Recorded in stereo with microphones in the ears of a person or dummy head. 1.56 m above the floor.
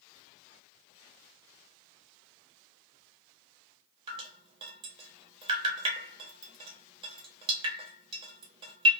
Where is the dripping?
30° right (ahead or behind), 0.8 m.